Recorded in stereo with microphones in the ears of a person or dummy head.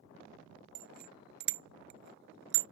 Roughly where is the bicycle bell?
Right.